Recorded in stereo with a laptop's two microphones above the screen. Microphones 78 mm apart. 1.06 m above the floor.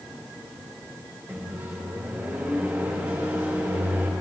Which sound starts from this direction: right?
A microwave, at 1.3 s.